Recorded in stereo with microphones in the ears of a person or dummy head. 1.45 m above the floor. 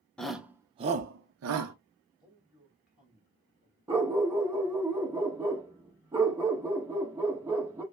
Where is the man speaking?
5° right (ahead or behind), 2 m.